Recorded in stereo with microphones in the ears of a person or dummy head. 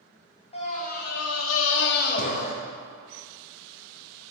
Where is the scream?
30° left (ahead or behind), 0.8 m; by 2.5 s 40° left (ahead or behind), 1.0 m.